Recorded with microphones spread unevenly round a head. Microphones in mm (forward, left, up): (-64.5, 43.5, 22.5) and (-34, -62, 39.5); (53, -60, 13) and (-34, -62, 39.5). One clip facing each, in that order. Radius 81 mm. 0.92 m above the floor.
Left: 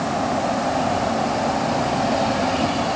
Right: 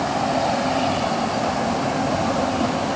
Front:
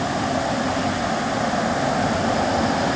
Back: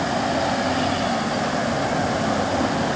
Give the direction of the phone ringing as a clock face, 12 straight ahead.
I don't hear a phone ringing.